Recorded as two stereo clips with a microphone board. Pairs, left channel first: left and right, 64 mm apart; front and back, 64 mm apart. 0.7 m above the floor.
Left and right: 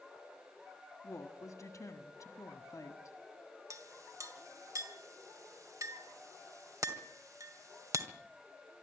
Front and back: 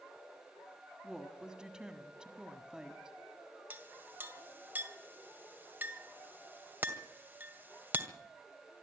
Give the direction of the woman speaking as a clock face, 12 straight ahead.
9 o'clock.